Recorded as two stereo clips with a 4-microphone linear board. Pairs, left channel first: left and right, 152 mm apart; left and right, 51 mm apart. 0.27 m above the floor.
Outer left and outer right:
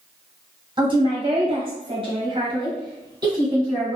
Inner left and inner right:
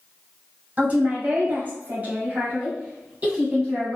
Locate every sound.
0.8 s a woman speaking: 30° right (ahead or behind), 1.1 m; by 4.0 s 25° right (ahead or behind), 1.9 m